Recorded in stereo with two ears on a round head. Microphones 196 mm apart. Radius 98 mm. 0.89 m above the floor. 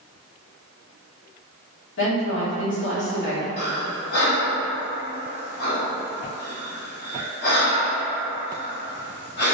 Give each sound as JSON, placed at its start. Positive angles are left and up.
{"t": 2.0, "sound": "a woman speaking", "side_deg": 60, "distance_m": 1.8}
{"t": 3.6, "sound": "breathing", "side_deg": 50, "distance_m": 1.3}